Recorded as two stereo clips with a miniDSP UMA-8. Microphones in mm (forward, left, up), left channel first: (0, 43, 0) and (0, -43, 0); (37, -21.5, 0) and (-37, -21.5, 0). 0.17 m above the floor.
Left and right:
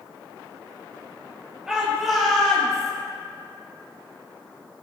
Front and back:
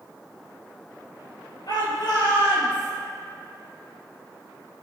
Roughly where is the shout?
Ahead.